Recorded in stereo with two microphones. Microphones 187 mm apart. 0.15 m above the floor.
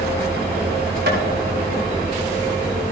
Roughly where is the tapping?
Right.